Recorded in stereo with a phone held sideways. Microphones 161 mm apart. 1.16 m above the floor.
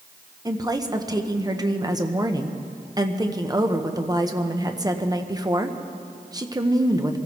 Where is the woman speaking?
25° right (ahead or behind), 1.0 m.